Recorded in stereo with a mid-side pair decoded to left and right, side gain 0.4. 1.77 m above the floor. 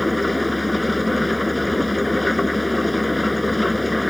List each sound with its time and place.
0.0 s an engine running: 10° left